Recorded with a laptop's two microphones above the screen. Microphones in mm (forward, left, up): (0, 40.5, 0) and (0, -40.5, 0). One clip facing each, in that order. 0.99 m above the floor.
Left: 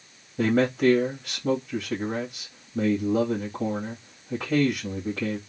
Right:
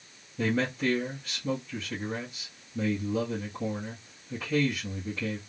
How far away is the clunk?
I don't hear a clunk.